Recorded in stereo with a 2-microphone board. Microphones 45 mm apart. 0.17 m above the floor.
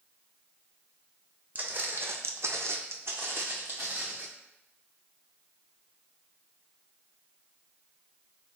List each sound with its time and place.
1.6 s footsteps: 35° right (ahead or behind), 0.7 m; by 4.3 s 40° right (ahead or behind), 1.2 m